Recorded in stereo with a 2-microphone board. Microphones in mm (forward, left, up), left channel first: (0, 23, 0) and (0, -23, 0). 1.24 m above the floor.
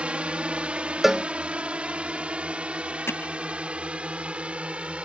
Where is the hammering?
75° left (ahead or behind).